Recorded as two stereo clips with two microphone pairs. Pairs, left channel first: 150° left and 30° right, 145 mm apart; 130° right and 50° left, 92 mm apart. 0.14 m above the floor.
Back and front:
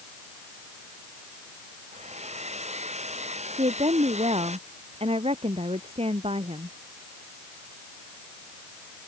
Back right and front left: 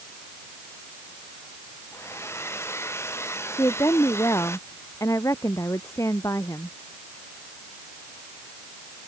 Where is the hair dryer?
70° right.